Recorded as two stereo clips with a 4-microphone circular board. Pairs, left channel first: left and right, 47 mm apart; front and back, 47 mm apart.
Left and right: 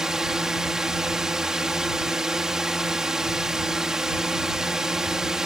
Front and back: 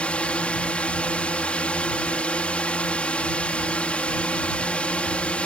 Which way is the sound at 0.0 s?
25° right.